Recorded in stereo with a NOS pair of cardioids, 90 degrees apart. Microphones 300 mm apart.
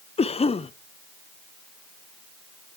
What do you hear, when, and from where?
0.2 s a cough: 20° left, 0.8 m